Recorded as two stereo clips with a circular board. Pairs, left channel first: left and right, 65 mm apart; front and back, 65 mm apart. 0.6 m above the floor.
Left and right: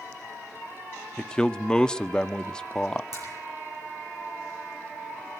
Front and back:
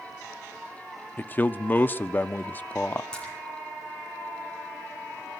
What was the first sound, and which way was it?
A man speaking, 25° left.